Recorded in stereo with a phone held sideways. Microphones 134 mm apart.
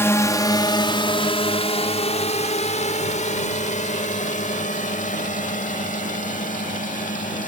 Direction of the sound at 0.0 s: 20° left (ahead or behind).